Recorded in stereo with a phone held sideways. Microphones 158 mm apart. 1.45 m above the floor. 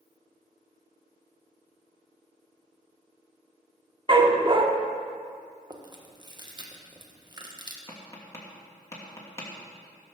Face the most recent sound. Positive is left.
turn(degrees=20)  # may be behind; listen again after turning